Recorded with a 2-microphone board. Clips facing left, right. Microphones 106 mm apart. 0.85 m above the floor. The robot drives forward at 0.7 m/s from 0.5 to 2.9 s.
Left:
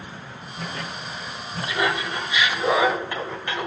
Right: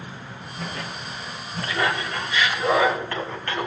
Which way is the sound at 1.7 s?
15° left (ahead or behind).